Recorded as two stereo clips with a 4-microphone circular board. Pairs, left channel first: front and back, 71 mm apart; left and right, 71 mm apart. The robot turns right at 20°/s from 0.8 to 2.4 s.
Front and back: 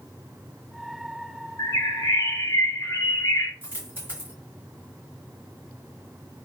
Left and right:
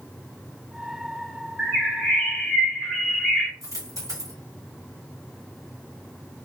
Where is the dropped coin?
120° right, 1.7 m.